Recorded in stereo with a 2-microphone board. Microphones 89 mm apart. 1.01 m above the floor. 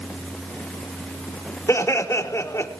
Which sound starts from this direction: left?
Laughter, at 1.7 s.